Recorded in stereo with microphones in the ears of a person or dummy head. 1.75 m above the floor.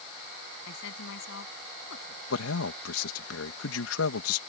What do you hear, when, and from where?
0.7 s a woman speaking: 65° left (ahead or behind)
2.3 s a man speaking: 90° left